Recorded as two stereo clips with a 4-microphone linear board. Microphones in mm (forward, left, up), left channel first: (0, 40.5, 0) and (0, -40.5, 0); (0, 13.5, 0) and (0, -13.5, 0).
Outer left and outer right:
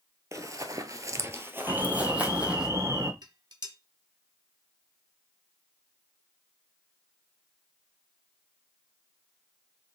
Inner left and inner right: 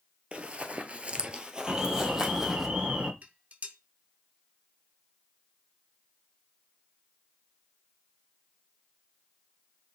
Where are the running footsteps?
40° right (ahead or behind), 0.8 m; by 2.7 s 10° right (ahead or behind), 1.7 m.